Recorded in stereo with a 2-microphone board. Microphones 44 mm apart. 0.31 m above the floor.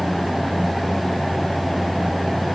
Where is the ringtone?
No ringtone in this recording.